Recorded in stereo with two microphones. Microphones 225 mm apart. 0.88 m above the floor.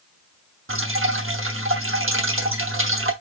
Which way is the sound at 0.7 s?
65° right (ahead or behind).